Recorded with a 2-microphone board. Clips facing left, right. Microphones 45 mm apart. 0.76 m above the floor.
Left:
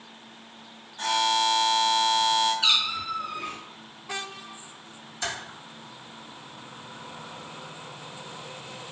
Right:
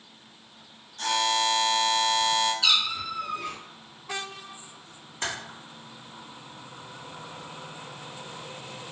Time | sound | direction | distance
1.0 | a buzzer | 15° left (ahead or behind) | 0.8 m
2.6 | a cat meowing | 30° left (ahead or behind) | 0.6 m
5.2 | typing on a keyboard | 50° right (ahead or behind) | 1.4 m